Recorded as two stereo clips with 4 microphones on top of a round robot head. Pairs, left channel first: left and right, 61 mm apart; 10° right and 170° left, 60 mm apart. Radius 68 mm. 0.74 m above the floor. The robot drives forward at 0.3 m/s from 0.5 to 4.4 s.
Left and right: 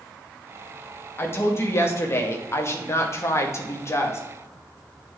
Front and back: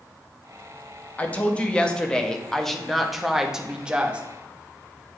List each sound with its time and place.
1.2 s a woman speaking: 50° left, 1.3 m; by 4.2 s 110° left, 1.2 m